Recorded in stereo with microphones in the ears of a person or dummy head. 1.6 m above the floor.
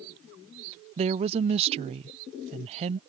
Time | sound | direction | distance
1.0 | a woman speaking | 30° right (ahead or behind) | ?